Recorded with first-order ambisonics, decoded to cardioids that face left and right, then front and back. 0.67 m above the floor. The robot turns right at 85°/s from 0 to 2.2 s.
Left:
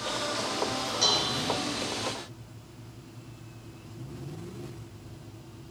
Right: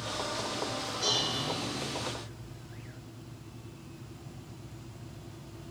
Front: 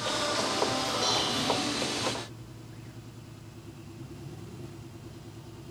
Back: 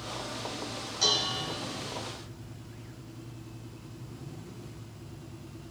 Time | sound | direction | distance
1.0 | dishes clattering | 135° left | 1.8 m